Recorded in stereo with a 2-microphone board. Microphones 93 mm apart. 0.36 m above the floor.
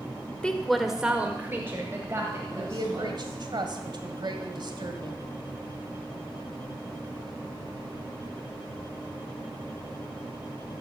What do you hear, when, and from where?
0.4 s a woman speaking: 10° left (ahead or behind), 1.1 m; by 3.4 s 35° right (ahead or behind), 3 m
2.5 s a woman speaking: 55° right (ahead or behind), 1.8 m